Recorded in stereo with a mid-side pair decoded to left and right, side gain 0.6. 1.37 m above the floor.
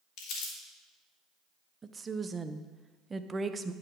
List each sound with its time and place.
0.2 s crumpling: 70° left, 2.5 m
1.8 s a woman speaking: 25° right, 0.7 m